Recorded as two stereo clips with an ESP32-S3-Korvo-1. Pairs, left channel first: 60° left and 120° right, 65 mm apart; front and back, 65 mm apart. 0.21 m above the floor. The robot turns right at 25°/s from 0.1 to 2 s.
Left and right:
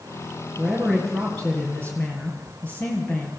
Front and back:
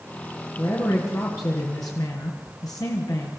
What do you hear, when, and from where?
0.6 s a man speaking: 35° right, 4.5 m; by 3.4 s straight ahead, 4.5 m